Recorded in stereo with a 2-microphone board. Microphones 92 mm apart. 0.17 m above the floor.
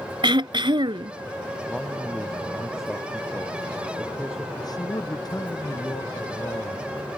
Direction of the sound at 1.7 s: Centre (ahead or behind).